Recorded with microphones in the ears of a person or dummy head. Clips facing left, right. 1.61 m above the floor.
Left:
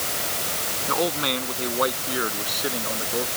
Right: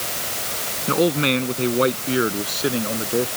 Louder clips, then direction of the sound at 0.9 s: Right 7 dB; 35° right (ahead or behind).